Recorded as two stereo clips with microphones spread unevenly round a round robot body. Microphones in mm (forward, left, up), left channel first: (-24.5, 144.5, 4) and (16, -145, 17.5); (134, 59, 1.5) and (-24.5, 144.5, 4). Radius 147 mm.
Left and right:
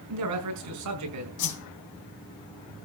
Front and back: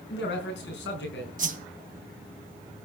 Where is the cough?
I don't hear a cough.